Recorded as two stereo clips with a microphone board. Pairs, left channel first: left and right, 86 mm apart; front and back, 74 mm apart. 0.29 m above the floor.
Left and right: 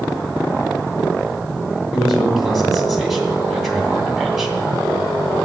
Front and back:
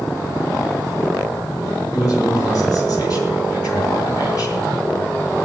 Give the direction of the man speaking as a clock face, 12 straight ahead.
12 o'clock.